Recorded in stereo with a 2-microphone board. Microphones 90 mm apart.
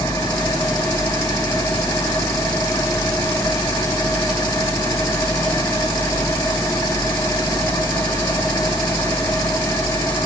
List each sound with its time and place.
0.0 s an engine running: 30° left (ahead or behind), 1.9 m